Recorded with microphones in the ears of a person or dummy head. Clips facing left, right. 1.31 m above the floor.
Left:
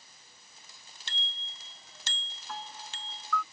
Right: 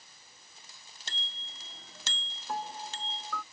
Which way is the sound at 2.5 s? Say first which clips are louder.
Right 6 dB; 30° right (ahead or behind).